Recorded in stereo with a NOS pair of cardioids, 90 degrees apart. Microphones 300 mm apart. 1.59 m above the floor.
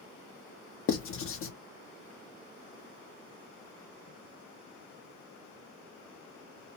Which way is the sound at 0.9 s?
45° left.